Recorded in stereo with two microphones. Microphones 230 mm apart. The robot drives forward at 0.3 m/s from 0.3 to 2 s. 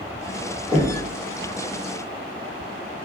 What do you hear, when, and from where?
0.7 s knocking: 35° left (ahead or behind), 1.5 m; by 1.1 s 30° left (ahead or behind), 1.6 m